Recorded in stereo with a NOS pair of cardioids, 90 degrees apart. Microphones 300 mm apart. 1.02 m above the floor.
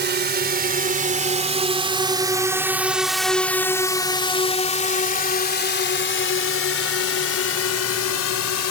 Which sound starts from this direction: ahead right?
A drone, at 0.0 s.